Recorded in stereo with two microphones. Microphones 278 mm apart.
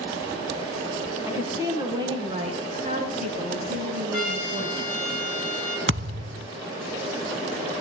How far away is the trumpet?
About 5 m.